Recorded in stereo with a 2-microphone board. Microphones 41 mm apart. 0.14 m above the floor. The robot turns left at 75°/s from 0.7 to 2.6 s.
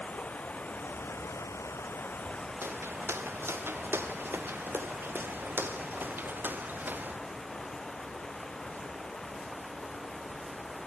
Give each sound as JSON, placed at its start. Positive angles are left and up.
{"t": 0.0, "sound": "running water", "azimuth_deg": 150}
{"t": 2.6, "sound": "footsteps", "side_deg": -70}